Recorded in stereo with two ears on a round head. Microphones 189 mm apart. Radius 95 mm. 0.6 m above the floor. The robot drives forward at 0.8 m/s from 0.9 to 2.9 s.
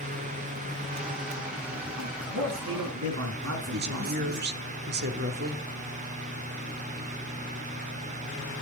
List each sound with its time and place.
2.0 s a man speaking: 85° right, 5 m; by 4.5 s 80° right, 5 m
3.7 s a woman speaking: 55° right (ahead or behind), 1.6 m